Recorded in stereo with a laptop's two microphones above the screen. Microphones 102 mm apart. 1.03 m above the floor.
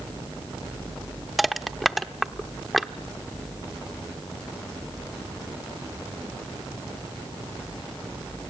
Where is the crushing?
Centre (ahead or behind), 0.9 m.